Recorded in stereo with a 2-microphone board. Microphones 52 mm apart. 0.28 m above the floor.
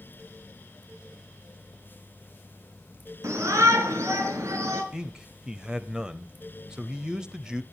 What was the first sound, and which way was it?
A shout, 70° right (ahead or behind).